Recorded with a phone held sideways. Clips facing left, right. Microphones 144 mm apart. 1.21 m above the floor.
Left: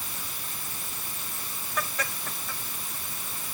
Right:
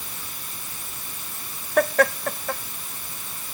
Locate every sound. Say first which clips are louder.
1.8 s laughter: right 15 dB; 65° right (ahead or behind)